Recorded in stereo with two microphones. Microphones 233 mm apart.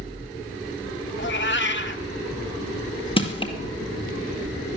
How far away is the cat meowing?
About 1.0 m.